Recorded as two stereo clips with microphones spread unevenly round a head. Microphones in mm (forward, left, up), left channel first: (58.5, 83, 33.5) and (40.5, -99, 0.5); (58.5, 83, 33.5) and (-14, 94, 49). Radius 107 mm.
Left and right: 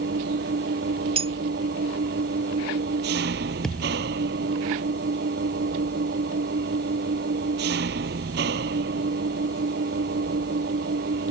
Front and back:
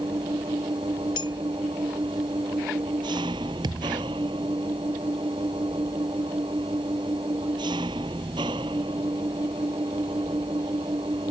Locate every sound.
0.0 s an engine running: 140° right
1.2 s a clink: 35° right
3.6 s a thud: 170° left